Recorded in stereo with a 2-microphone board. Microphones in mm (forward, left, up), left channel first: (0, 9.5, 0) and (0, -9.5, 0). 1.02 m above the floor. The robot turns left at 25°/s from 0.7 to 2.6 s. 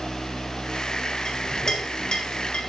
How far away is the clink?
About 3.5 m.